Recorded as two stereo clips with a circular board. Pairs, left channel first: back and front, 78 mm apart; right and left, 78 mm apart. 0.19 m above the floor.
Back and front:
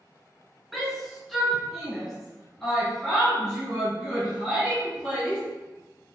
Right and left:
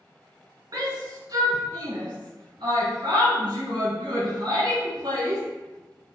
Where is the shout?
90° left, 2.5 m; by 5.4 s 95° left, 4.5 m.